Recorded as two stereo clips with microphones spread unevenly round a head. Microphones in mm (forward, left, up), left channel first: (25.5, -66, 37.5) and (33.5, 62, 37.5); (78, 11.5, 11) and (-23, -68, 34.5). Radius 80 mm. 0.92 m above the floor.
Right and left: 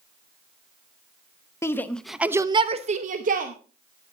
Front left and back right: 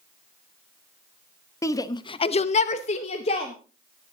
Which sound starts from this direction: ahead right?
A shout, at 1.6 s.